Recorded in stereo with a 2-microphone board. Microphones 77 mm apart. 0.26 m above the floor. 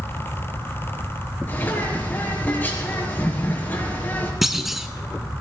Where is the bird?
25° left (ahead or behind), 5 m.